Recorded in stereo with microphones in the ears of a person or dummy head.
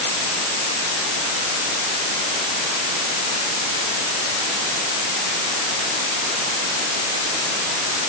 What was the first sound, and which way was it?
Only background noise.